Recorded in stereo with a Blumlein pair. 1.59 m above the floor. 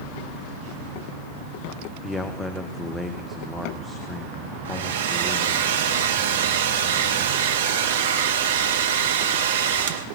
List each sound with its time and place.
2.0 s a man speaking: 10° left, 1.0 m
4.7 s a hair dryer: 60° right, 0.9 m